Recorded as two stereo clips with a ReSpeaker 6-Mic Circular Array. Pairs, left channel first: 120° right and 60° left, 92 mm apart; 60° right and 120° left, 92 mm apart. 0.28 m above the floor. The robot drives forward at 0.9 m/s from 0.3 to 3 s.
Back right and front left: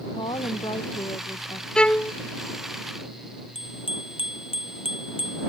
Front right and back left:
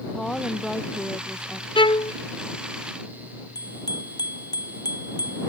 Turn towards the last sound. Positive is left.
turn(degrees=-105)